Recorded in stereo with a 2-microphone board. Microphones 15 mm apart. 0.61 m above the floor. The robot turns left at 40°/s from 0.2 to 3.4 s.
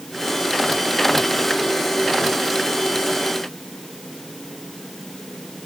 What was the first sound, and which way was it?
Only background noise.